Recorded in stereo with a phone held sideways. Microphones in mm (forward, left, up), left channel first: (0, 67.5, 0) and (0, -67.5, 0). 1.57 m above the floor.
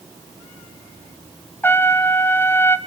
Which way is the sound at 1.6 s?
15° left (ahead or behind).